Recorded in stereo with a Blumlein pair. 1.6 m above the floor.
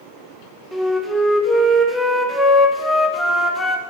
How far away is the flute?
About 0.8 m.